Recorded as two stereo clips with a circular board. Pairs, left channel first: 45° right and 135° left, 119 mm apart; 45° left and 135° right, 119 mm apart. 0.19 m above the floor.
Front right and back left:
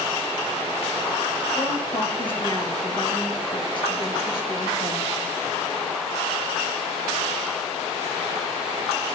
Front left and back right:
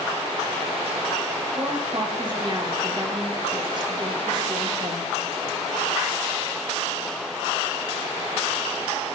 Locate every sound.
1.6 s a woman speaking: 90° right, 3.5 m